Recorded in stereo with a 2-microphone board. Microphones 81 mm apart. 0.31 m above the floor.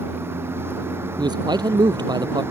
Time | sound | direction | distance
0.0 | a vehicle | 30° right (ahead or behind) | ?
1.2 | a man speaking | 60° right (ahead or behind) | ?